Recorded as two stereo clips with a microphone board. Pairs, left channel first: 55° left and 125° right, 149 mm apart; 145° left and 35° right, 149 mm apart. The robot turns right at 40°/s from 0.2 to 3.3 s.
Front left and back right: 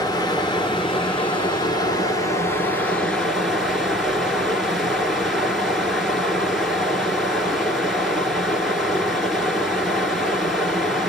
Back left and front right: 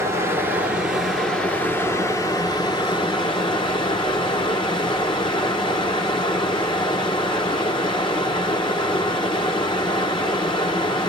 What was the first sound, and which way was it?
Running water, 20° left.